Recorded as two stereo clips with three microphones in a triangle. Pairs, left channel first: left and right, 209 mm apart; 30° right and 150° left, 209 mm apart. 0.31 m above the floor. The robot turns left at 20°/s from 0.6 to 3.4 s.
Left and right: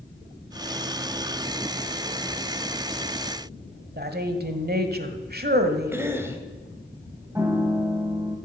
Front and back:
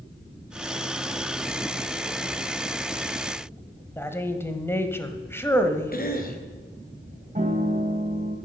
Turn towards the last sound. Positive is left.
turn(degrees=-165)